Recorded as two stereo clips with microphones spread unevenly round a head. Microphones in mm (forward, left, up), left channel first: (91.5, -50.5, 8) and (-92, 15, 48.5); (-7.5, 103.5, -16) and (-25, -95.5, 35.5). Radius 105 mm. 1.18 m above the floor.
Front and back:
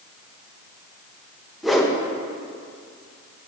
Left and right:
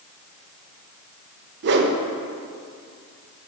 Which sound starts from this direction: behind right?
A whoosh, at 1.6 s.